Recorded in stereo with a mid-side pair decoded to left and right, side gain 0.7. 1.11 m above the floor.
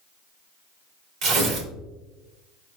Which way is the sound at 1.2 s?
55° right.